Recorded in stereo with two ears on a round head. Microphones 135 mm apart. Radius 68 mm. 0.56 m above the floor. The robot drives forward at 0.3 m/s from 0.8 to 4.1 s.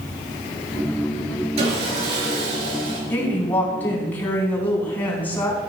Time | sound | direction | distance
1.6 | sawing | 45° right (ahead or behind) | 4.5 m
3.1 | a woman speaking | 15° left (ahead or behind) | 4 m